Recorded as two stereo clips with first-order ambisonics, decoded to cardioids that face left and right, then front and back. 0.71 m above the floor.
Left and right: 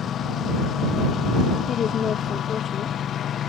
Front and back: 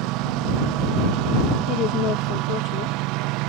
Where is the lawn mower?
150° left.